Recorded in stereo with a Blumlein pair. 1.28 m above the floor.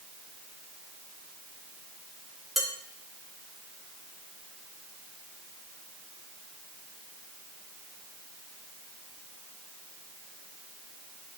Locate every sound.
2.6 s dishes clattering: 5° left, 3.5 m